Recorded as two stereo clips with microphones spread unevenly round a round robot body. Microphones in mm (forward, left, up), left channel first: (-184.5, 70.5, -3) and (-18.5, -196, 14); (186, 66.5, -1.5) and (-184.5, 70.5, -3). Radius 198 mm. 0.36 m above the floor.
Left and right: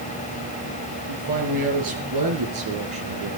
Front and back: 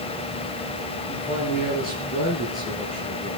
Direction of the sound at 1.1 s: 70° right.